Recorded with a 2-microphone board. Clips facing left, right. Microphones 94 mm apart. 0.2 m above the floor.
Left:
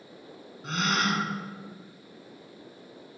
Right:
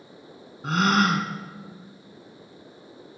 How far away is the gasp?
About 0.8 m.